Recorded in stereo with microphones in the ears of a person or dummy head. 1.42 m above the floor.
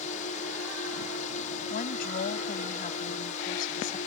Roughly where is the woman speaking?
Left.